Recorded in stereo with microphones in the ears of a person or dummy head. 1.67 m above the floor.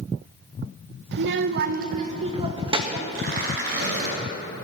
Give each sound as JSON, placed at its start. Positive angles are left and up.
{"t": 1.1, "sound": "a child speaking", "side_deg": -65, "distance_m": 1.2}
{"t": 3.1, "sound": "tearing paper", "side_deg": -60, "distance_m": 6.0}